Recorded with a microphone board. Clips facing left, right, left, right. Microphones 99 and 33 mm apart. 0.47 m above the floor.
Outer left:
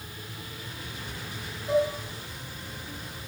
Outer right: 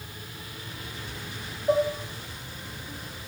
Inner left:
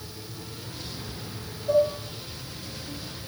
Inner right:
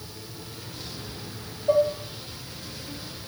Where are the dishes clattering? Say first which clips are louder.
Outer right 1 dB, inner right 1 dB; 35° right (ahead or behind), 0.8 m.